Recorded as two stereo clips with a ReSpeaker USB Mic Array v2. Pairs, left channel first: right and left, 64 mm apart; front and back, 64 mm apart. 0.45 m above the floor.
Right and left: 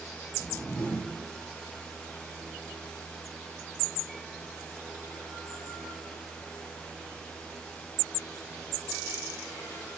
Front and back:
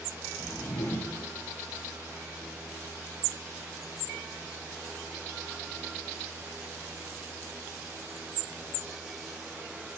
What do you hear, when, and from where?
0.4 s a whoosh: 30° right, 5.5 m